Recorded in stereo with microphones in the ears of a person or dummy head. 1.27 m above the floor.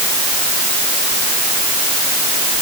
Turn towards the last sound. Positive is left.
No sound to turn to.